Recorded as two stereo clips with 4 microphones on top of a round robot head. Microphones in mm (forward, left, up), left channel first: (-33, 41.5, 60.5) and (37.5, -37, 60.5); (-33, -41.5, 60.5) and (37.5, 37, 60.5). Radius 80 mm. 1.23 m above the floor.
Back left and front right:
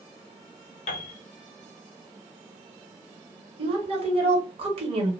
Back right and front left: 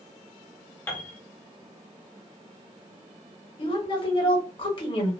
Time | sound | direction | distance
0.9 | a piano | 155° left | 0.6 m
3.6 | a woman speaking | 85° right | 1.2 m